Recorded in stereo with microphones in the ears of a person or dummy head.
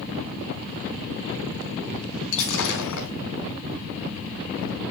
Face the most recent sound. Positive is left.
turn(degrees=75)  # may be behind; listen again after turning